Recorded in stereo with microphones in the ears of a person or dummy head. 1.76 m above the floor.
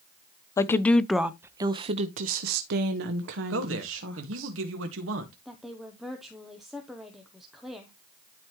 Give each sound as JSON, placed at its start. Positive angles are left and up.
{"t": 0.6, "sound": "a woman speaking", "side_deg": 25, "distance_m": 0.8}
{"t": 3.5, "sound": "a man speaking", "side_deg": -85, "distance_m": 1.7}
{"t": 5.5, "sound": "a woman speaking", "side_deg": 0, "distance_m": 0.9}